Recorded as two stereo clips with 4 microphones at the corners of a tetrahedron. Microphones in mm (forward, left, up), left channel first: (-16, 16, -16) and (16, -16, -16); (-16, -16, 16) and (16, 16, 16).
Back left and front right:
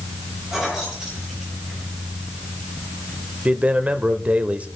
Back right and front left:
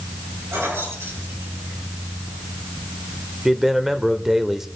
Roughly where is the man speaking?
Ahead right.